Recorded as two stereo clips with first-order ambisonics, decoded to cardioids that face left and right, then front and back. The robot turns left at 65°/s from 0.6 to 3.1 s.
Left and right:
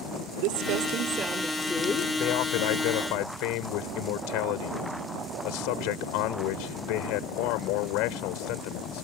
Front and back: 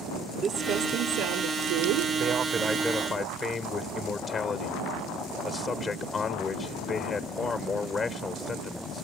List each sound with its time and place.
0.4 s crumpling: 110° right; by 2.1 s 155° left
2.2 s a man speaking: 135° left; by 9.0 s 75° left